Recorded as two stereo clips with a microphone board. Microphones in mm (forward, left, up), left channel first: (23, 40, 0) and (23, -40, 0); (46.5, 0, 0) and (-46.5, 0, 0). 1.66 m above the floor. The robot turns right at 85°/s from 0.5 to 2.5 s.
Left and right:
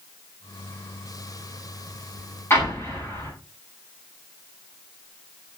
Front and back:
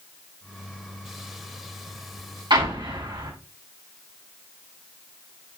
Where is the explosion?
150° left, 7.5 m.